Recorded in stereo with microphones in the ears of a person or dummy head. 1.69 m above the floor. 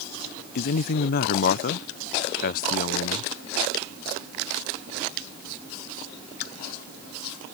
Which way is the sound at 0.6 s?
50° left (ahead or behind).